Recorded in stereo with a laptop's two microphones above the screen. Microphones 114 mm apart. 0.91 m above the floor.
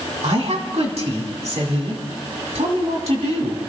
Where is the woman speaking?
70° right (ahead or behind), 2.5 m.